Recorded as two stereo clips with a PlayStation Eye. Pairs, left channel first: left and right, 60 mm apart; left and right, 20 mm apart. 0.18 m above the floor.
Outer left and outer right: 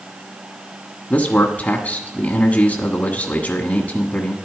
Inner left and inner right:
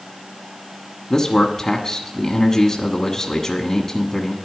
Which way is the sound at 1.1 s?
25° left (ahead or behind).